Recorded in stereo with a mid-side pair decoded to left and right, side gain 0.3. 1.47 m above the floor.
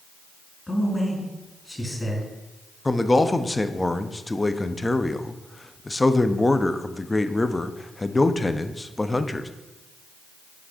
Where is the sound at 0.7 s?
25° left, 2.5 m.